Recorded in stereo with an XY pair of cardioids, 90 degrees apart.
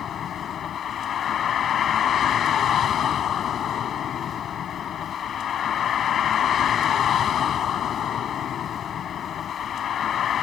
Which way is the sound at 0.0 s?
65° left.